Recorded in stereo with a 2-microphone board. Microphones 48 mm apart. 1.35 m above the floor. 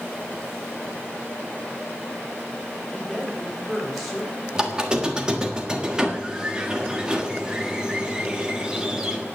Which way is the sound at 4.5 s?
15° right (ahead or behind).